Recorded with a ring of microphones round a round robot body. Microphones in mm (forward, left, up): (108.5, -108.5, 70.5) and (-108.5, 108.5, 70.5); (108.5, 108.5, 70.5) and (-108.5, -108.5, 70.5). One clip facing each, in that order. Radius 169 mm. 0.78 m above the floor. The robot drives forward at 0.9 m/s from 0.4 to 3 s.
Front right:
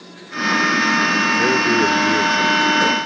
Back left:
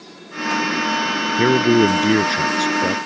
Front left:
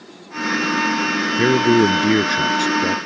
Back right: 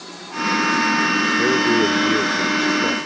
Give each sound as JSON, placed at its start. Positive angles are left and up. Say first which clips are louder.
{"t": 1.4, "sound": "a man speaking", "louder": "back left 6 dB, front left 4 dB", "azimuth_deg": 90}